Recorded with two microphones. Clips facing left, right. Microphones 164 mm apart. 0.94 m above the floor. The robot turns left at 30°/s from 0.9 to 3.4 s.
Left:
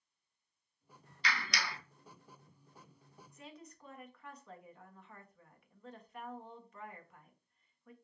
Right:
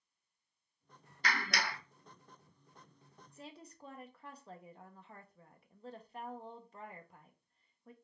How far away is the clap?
About 0.6 m.